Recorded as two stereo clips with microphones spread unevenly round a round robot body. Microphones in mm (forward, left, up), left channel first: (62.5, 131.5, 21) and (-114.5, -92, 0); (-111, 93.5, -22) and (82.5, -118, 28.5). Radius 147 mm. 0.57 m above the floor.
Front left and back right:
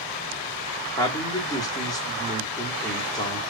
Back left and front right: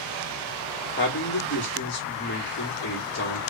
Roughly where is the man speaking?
Behind left.